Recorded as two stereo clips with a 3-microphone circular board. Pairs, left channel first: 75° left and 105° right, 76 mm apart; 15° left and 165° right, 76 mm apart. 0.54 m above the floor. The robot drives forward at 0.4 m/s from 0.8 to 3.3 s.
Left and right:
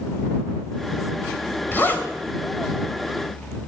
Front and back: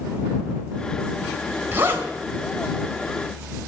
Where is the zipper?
135° left, 2 m; by 2.1 s 140° left, 2 m.